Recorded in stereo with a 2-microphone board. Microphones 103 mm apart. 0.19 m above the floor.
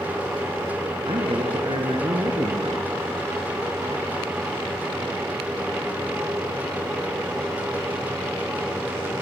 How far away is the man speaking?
About 3 m.